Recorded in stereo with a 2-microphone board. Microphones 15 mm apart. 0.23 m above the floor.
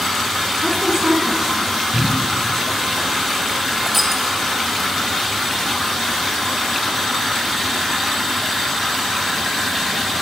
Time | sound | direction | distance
0.6 | a woman speaking | 35° right (ahead or behind) | 2.5 m
1.9 | a cupboard door | 75° right (ahead or behind) | 6.5 m
3.9 | crushing | 5° right (ahead or behind) | 2 m